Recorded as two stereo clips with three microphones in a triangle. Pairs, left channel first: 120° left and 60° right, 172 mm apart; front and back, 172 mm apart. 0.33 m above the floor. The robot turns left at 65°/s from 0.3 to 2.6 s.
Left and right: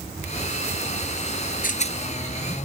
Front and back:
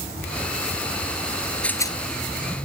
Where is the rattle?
85° left; by 2.0 s 65° left.